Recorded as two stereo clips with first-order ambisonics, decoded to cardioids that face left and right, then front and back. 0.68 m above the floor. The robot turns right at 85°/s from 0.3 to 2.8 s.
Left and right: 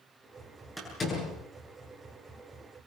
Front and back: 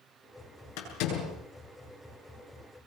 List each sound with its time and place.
0.8 s a door slam: straight ahead, 8 m; by 1.4 s 50° left, 8 m